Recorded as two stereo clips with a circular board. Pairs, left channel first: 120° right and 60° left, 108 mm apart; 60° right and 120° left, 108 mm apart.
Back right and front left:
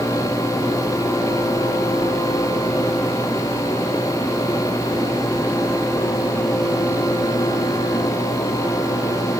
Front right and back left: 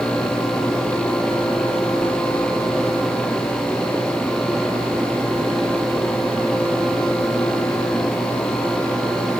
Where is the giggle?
I don't hear a giggle.